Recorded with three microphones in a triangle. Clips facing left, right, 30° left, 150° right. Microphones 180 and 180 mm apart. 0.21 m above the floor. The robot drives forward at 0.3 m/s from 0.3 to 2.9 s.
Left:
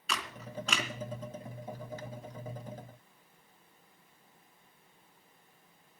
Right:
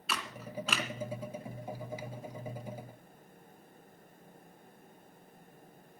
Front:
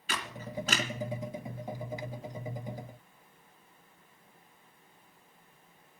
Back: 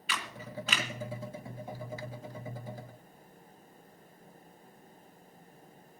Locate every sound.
0.1 s a camera shutter: 5° right, 2.5 m